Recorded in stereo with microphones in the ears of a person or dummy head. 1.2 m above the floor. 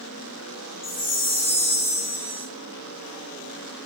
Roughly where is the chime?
Left.